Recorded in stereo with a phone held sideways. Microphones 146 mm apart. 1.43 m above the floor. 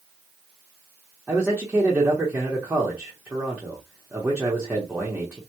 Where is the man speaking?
10° right (ahead or behind), 0.7 m.